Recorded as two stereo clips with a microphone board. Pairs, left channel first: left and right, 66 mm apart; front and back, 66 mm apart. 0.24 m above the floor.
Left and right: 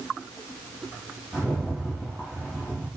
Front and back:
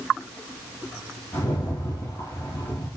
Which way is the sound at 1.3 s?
Straight ahead.